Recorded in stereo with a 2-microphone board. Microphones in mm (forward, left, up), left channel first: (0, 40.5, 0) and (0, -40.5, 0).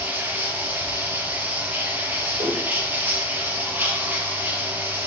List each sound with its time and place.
0.0 s running water: 20° right (ahead or behind), 3 m
2.4 s a whoosh: 75° right (ahead or behind), 7 m